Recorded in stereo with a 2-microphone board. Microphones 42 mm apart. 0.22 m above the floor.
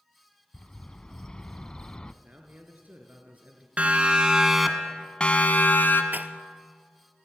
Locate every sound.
0.5 s a bird: 20° left (ahead or behind), 0.8 m
2.2 s a man speaking: 40° right (ahead or behind), 3 m
3.8 s a siren: 30° right (ahead or behind), 2.5 m; by 6.0 s 55° left (ahead or behind), 2 m
6.1 s a rattle: 45° right (ahead or behind), 1.1 m